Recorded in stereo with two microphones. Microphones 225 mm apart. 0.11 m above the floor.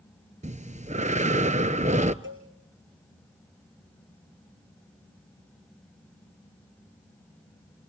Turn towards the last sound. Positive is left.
turn(degrees=-60)  # may be behind; listen again after turning